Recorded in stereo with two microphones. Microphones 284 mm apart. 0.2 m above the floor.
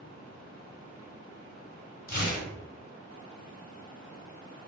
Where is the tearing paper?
30° left (ahead or behind), 0.9 m.